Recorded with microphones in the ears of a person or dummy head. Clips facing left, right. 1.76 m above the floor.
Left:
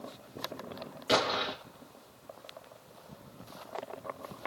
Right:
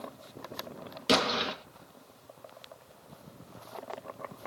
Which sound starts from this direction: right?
An explosion, at 1.1 s.